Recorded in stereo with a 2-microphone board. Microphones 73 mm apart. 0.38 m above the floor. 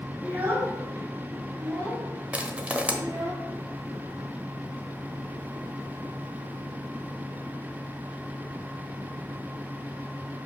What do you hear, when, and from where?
0.2 s a child speaking: 20° right (ahead or behind), 3 m; by 3.3 s 55° right (ahead or behind), 4 m
2.3 s crushing: 20° right (ahead or behind), 1.0 m